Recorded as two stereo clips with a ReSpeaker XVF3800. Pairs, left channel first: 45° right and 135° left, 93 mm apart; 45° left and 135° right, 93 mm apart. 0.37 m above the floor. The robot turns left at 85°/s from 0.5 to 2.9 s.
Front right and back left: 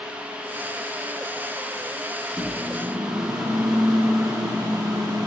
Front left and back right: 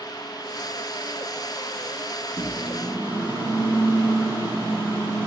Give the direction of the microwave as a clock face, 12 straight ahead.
4 o'clock.